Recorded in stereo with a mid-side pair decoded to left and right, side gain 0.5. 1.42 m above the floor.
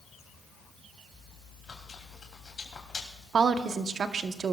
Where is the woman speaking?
45° right, 1.0 m.